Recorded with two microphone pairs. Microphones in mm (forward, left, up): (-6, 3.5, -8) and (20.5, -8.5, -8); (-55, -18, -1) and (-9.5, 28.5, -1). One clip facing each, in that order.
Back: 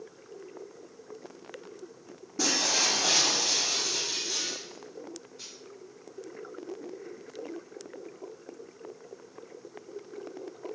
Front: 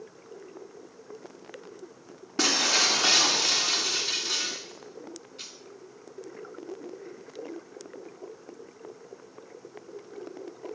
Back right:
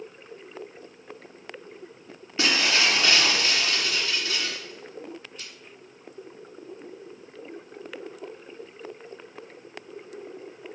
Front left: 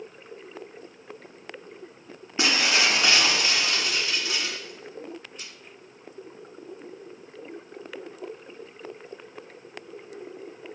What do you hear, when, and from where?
2.4 s breaking glass: 25° right, 1.6 m